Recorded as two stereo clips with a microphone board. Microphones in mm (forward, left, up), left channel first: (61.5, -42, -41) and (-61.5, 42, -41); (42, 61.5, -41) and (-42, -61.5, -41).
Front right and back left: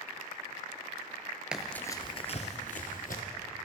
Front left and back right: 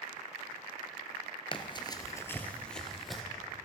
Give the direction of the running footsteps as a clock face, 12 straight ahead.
10 o'clock.